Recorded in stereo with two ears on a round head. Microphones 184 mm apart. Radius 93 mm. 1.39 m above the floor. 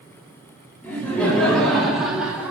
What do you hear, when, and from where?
0.8 s laughter: 10° left (ahead or behind), 4 m; by 2.5 s 10° right (ahead or behind), 3 m